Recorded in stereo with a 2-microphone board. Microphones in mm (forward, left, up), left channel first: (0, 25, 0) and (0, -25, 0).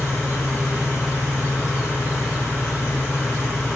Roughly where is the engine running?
Left.